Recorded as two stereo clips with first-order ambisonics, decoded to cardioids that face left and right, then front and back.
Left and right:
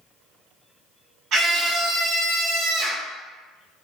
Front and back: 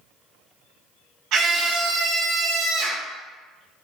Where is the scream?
140° right, 1.0 m.